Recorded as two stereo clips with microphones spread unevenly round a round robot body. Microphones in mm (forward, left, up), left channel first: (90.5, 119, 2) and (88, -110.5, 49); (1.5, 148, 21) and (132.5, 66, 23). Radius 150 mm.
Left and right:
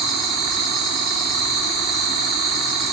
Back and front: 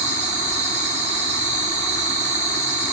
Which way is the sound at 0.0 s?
5° left.